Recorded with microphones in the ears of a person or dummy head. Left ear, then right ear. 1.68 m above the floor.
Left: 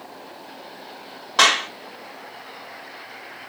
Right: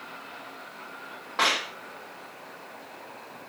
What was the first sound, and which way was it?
A clap, 75° left (ahead or behind).